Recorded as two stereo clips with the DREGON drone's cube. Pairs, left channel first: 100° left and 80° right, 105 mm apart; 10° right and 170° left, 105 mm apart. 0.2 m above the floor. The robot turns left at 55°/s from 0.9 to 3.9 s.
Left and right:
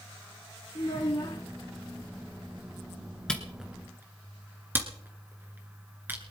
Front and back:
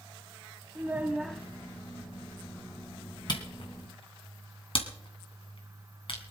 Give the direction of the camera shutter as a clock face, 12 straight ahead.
11 o'clock.